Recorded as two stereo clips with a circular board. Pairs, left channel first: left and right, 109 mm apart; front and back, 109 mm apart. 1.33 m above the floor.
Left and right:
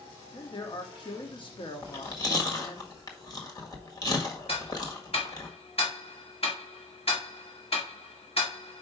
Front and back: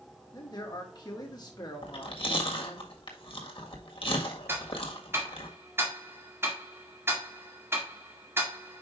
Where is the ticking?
115° left, 1.9 m.